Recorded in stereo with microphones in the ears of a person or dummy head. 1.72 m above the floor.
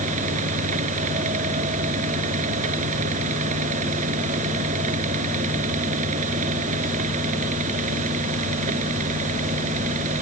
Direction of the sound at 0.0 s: 35° right (ahead or behind).